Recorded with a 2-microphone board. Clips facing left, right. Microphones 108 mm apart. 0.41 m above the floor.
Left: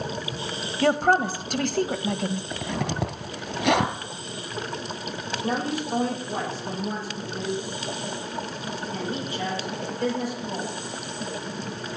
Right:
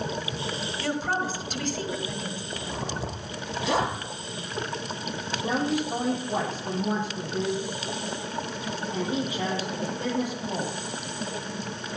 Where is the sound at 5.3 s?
15° right (ahead or behind), 9.5 m.